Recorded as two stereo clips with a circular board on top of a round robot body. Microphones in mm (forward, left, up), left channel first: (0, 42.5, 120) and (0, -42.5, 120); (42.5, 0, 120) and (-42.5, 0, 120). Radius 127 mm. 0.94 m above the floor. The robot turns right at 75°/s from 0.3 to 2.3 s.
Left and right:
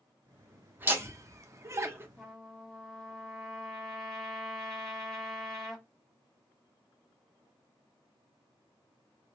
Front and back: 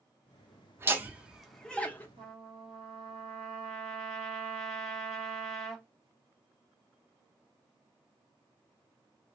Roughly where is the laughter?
Behind right.